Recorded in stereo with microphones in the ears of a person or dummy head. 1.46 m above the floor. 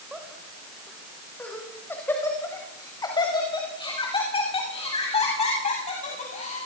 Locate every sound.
0.1 s laughter: centre (ahead or behind), 7 m; by 6.7 s 40° left (ahead or behind), 12 m